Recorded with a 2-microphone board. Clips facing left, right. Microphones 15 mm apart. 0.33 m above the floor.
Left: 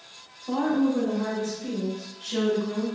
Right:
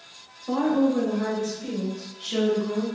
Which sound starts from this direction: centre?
A woman speaking, at 0.5 s.